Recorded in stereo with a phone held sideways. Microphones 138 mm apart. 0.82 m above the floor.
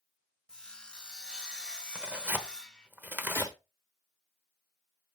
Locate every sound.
0.5 s sawing: 5° left (ahead or behind), 0.8 m
1.9 s tearing paper: 15° right (ahead or behind), 0.9 m
3.4 s a gunshot: 25° left (ahead or behind), 1.3 m